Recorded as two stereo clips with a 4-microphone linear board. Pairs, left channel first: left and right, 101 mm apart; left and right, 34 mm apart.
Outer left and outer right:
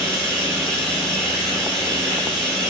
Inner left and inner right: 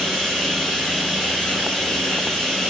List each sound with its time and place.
0.0 s running water: 5° left (ahead or behind), 2.5 m